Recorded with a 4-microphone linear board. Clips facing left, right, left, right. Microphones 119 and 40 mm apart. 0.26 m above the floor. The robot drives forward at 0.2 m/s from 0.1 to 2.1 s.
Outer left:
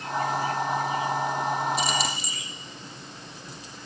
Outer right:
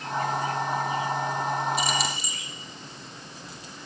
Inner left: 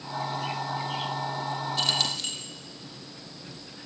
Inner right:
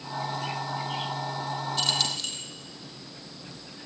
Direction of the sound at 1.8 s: Centre (ahead or behind).